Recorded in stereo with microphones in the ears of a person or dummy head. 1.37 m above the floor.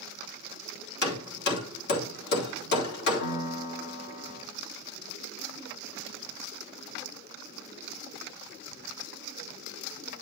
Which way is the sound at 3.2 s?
60° left (ahead or behind).